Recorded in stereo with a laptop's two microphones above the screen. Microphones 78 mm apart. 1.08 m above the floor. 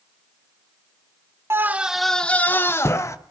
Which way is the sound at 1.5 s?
35° right (ahead or behind).